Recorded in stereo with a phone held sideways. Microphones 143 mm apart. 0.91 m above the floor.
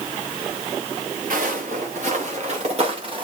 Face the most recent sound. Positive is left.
turn(degrees=-35)  # may be behind; listen again after turning